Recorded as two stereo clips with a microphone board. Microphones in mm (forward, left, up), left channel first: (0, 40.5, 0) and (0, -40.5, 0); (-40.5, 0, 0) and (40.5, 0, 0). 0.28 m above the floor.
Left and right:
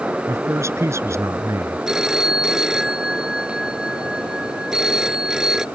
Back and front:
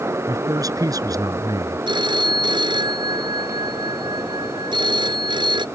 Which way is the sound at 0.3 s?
40° right.